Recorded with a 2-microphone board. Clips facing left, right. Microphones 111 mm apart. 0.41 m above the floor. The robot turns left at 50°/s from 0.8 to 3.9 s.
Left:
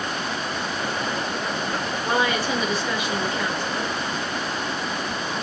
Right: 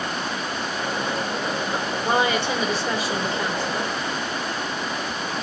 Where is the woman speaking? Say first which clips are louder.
Right 1 dB; 35° right, 0.9 m; by 3.9 s 130° right, 0.9 m.